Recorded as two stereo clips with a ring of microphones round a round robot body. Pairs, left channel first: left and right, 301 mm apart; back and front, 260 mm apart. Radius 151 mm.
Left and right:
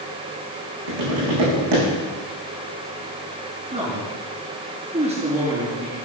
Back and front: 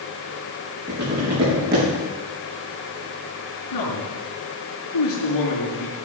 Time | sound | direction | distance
0.9 | tapping | 65° right | 8 m
3.7 | a man speaking | 160° right | 5.5 m